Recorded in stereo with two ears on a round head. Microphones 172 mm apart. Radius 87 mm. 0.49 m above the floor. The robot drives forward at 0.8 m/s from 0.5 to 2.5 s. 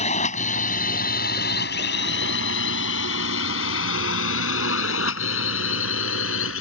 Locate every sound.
0.0 s a drone: 35° left (ahead or behind); by 6.6 s 80° left